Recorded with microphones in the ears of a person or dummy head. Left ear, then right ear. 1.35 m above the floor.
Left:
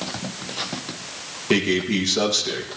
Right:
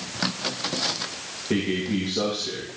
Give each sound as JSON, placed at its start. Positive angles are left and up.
{"t": 1.5, "sound": "a man speaking", "side_deg": 75, "distance_m": 2.0}